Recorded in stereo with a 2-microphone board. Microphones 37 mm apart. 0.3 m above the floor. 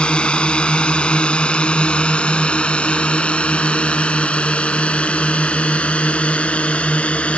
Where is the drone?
25° left (ahead or behind); by 7.4 s 30° left (ahead or behind).